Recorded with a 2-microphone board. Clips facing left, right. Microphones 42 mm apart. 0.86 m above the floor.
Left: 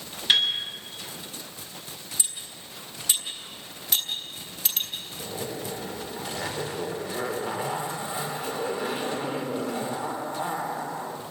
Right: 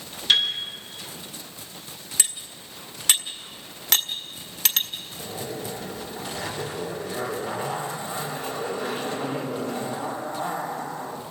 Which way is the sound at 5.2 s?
15° left (ahead or behind).